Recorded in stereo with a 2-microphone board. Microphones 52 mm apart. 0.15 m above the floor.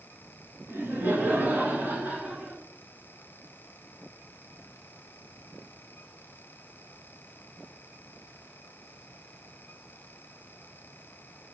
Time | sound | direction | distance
0.7 | laughter | 50° right (ahead or behind) | 1.9 m